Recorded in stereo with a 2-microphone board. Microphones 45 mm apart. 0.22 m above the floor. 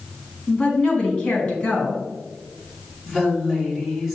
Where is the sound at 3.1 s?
5° right (ahead or behind), 2 m.